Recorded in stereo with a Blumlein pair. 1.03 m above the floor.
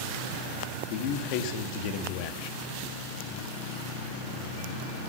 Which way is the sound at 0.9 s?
45° left.